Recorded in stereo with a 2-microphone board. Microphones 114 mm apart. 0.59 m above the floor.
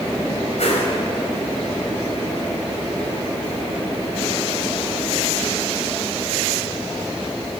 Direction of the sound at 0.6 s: 75° left (ahead or behind).